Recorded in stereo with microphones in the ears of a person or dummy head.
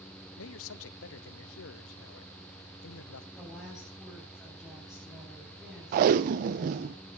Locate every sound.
0.4 s a man speaking: 70° left (ahead or behind), 0.8 m
3.4 s a woman speaking: centre (ahead or behind), 9 m
5.9 s tape being pulled: 35° right (ahead or behind), 0.7 m